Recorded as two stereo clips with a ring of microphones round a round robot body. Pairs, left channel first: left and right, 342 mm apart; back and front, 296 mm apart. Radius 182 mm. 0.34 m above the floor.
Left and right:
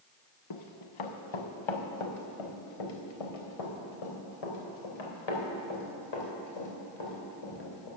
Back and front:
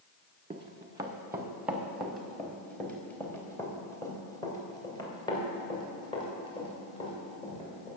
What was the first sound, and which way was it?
Running footsteps, 70° left.